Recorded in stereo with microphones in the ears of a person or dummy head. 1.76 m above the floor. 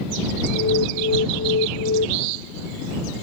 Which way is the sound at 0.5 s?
65° left (ahead or behind).